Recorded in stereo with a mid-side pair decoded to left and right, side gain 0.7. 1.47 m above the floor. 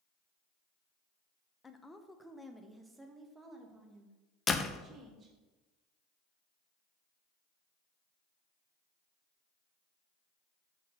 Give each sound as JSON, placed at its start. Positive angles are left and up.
{"t": 1.6, "sound": "a woman speaking", "azimuth_deg": 15, "distance_m": 0.9}
{"t": 4.5, "sound": "a door slam", "azimuth_deg": 25, "distance_m": 0.7}